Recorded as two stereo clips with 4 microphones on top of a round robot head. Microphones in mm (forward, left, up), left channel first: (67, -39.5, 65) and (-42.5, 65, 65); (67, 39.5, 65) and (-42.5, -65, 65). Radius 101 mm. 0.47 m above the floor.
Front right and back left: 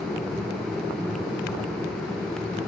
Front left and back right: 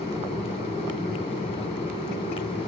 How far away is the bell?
I don't hear a bell.